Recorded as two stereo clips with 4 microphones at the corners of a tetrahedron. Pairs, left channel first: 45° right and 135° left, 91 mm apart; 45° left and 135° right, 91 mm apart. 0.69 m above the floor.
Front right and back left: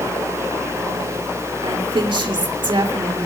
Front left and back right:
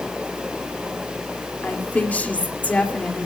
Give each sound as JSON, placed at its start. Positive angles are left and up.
{"t": 1.6, "sound": "a woman speaking", "azimuth_deg": 120, "distance_m": 2.5}